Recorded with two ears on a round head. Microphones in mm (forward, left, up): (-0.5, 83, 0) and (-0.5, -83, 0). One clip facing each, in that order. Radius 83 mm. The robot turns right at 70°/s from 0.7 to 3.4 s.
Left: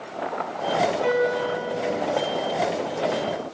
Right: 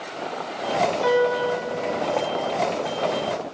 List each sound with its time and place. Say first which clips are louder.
1.0 s a piano: right 2 dB; 130° right, 4 m; by 1.6 s 95° right, 4 m